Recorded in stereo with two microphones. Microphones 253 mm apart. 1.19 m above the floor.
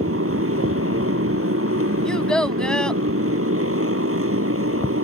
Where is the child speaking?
5° left (ahead or behind).